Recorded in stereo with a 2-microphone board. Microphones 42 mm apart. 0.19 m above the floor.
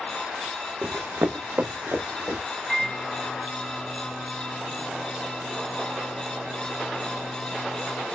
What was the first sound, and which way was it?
Running footsteps, 40° right (ahead or behind).